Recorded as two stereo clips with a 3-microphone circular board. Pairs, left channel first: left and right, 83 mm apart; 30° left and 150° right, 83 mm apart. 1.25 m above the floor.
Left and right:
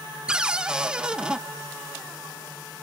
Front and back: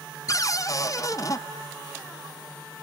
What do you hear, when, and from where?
0.3 s a cupboard door: 10° right, 0.9 m